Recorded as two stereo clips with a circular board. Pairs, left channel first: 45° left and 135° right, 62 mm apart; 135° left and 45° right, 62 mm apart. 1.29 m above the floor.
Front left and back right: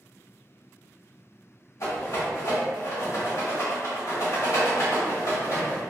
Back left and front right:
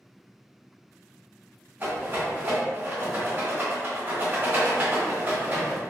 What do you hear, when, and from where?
1.8 s a rattle: 10° left, 1.9 m